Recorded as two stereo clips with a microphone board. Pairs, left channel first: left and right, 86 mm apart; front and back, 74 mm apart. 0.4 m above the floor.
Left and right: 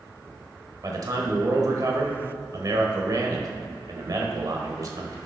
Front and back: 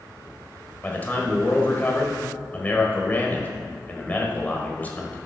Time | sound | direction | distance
0.8 | a man speaking | 60° right | 1.3 m